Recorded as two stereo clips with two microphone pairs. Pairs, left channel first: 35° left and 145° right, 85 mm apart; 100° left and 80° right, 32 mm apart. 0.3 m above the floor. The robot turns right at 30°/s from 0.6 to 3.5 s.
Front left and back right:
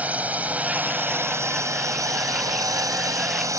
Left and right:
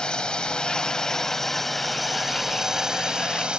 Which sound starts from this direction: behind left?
A drone, at 0.0 s.